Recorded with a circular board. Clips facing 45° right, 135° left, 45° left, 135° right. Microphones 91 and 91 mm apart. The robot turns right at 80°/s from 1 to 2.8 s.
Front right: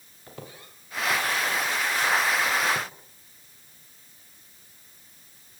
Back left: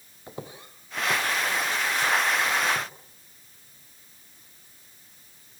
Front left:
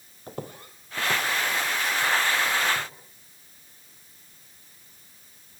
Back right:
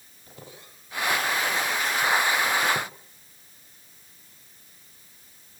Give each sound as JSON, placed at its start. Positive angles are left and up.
{"t": 0.3, "sound": "footsteps", "azimuth_deg": 70, "distance_m": 3.5}